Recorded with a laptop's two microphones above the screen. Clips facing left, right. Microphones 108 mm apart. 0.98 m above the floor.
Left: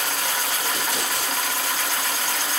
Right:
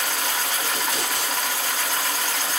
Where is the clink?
I don't hear a clink.